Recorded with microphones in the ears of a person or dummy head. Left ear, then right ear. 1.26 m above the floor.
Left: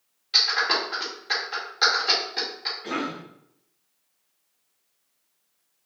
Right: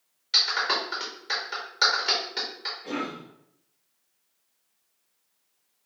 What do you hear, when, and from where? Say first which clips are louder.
0.3 s a clap: left 2 dB; 5° right (ahead or behind), 0.6 m
2.8 s a cough: left 2 dB; 55° left (ahead or behind), 0.9 m